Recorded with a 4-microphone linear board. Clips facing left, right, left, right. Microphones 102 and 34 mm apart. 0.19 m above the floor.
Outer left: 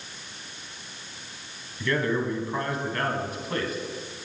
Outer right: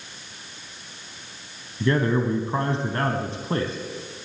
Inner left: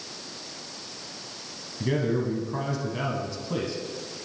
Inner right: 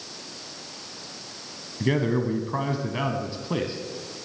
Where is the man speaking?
30° right (ahead or behind), 1.2 m.